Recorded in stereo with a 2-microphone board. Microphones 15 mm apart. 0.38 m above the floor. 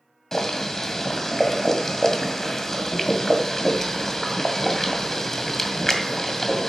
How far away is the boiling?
About 2.0 m.